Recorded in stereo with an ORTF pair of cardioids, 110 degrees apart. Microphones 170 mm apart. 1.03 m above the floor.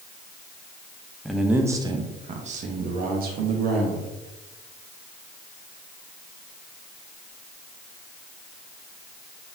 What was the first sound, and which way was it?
A man speaking, straight ahead.